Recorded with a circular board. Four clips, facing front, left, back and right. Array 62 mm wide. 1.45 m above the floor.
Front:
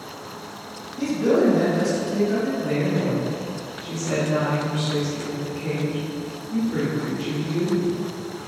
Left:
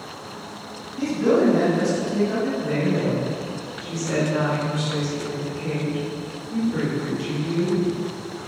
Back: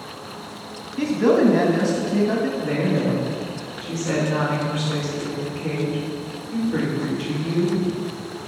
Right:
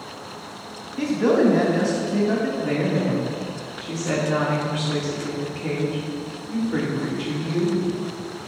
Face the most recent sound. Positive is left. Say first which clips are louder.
# even, back 1 dB
turn(degrees=-95)